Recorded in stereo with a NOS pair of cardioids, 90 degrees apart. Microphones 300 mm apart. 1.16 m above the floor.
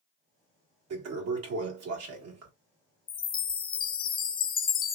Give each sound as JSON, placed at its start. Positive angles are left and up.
{"t": 0.9, "sound": "a toilet flushing", "azimuth_deg": -55, "distance_m": 1.6}
{"t": 3.1, "sound": "a chime", "azimuth_deg": 30, "distance_m": 0.5}